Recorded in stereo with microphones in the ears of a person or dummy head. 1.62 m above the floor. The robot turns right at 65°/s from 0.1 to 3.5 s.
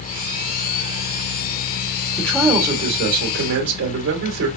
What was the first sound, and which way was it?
A man speaking, 165° left.